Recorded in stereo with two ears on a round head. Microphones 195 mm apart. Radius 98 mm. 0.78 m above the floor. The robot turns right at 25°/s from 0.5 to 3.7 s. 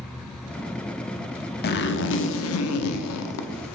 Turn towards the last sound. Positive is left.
turn(degrees=100)